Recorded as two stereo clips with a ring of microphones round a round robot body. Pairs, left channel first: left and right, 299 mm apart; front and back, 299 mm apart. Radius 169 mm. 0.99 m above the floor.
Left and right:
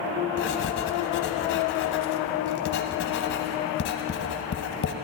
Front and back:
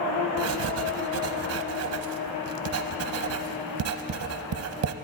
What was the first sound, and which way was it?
Writing, 145° left.